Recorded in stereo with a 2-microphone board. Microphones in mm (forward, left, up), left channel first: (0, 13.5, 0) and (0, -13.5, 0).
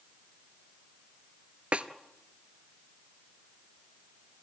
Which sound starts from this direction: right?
A snare drum, at 1.7 s.